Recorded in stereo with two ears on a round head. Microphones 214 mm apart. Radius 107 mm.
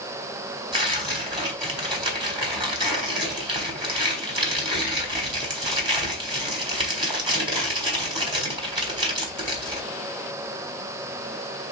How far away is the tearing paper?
About 1.3 m.